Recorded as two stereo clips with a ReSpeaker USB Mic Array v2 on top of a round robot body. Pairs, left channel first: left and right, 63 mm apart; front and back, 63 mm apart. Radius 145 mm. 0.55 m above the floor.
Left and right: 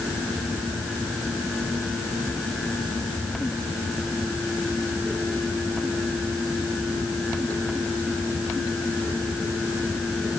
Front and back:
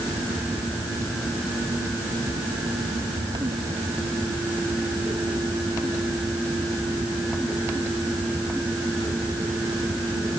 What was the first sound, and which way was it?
Only background noise.